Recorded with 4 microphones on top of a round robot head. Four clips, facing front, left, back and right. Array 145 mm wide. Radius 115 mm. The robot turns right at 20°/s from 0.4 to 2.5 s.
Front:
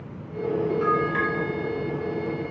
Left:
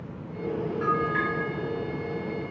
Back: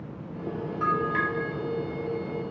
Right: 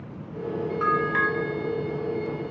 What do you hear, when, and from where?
0.8 s a bell: 90° right, 1.0 m; by 1.3 s 80° right, 1.0 m